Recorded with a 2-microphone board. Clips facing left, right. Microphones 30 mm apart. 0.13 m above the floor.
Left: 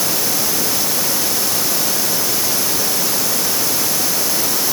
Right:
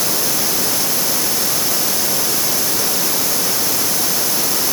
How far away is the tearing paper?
I don't hear tearing paper.